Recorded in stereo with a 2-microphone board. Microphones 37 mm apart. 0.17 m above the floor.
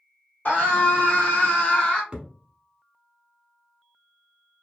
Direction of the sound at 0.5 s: 55° left (ahead or behind).